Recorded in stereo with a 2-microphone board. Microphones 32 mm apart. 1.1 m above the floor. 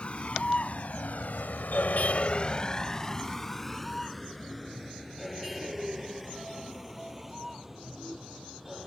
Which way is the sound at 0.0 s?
40° left (ahead or behind).